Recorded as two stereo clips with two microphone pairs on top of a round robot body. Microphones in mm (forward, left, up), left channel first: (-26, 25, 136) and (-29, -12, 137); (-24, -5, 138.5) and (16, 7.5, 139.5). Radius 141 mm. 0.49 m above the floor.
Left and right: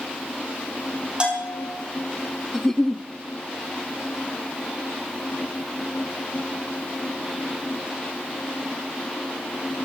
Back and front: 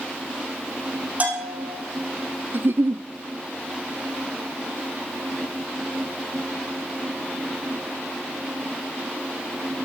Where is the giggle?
10° left, 1.0 m.